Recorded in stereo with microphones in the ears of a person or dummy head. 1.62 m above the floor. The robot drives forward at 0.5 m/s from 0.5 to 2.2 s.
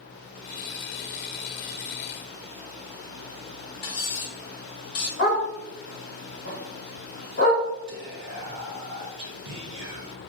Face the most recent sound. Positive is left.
turn(degrees=-55)  # may be behind; listen again after turning